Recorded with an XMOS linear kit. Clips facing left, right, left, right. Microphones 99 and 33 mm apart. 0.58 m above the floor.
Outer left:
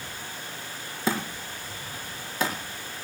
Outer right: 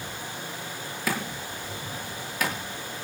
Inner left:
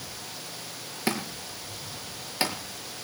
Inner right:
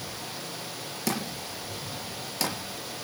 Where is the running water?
15° right (ahead or behind), 4 m.